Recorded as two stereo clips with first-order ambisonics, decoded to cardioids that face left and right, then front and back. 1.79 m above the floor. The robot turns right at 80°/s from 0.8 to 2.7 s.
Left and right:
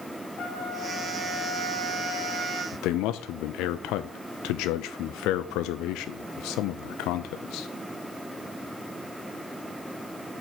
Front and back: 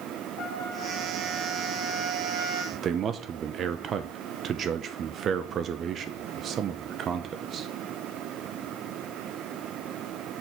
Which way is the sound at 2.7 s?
120° left.